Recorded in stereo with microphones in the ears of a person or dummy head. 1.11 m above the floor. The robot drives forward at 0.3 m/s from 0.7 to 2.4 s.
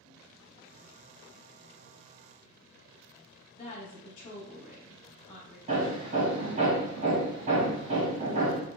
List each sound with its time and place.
3.5 s a woman speaking: 30° left (ahead or behind), 1.0 m
5.7 s hammering: 40° right (ahead or behind), 1.1 m